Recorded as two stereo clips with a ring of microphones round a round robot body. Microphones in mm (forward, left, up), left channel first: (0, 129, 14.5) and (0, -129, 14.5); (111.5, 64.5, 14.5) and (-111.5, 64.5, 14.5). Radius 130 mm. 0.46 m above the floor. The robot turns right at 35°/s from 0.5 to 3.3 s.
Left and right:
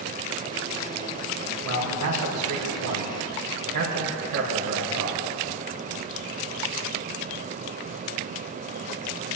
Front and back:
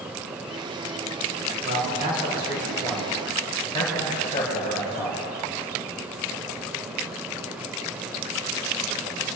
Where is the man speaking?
125° right, 5.5 m; by 5.3 s 70° right, 5.5 m.